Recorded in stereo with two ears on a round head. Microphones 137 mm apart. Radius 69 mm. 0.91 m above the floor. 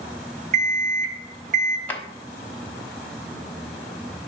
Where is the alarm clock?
50° right (ahead or behind), 1.2 m.